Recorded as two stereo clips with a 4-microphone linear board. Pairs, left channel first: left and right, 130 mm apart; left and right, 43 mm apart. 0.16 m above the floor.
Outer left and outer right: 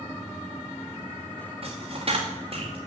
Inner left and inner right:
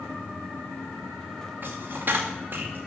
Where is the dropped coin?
50° right (ahead or behind), 2 m.